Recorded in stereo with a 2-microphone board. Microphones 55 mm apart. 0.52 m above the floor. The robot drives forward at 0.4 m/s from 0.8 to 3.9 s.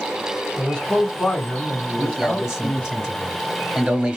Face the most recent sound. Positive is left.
turn(degrees=-20)  # may be behind; listen again after turning